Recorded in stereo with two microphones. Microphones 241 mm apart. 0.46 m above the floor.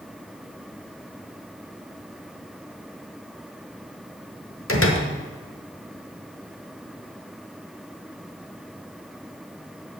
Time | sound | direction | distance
4.7 | a door slam | 60° left (ahead or behind) | 1.2 m